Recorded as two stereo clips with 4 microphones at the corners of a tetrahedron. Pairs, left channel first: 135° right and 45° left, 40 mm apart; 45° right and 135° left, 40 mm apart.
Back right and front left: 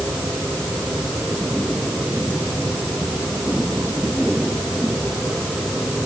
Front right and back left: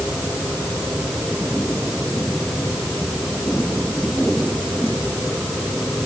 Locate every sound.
Only background noise.